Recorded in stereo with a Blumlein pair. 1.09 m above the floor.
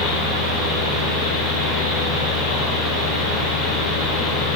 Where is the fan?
25° left, 2.5 m.